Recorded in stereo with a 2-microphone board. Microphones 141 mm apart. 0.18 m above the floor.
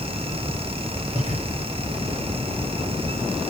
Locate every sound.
1.1 s breathing: 60° right (ahead or behind), 10 m